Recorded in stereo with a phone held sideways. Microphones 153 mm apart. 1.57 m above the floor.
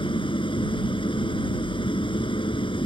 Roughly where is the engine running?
Left.